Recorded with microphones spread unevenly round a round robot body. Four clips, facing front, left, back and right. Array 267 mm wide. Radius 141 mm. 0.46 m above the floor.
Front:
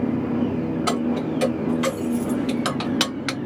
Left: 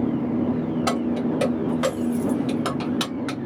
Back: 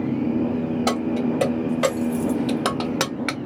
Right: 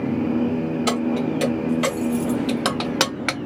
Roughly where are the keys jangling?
Behind left.